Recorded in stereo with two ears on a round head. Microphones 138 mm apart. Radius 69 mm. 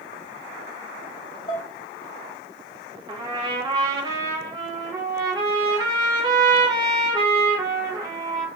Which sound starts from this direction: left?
Dishes clattering, at 1.5 s.